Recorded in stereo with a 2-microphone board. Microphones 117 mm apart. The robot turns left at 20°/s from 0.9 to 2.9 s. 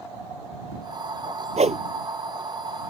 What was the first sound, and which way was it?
A whoosh, 75° right (ahead or behind).